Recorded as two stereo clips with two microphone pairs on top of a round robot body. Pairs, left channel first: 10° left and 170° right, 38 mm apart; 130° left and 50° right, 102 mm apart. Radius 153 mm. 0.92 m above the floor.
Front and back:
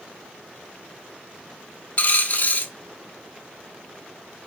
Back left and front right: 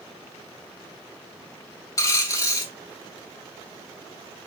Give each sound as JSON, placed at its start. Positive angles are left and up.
{"t": 2.0, "sound": "a dropped coin", "azimuth_deg": 65, "distance_m": 0.6}